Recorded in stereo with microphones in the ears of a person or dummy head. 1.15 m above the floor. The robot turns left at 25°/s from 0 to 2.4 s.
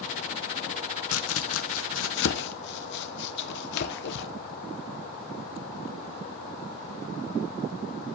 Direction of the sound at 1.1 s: 80° left.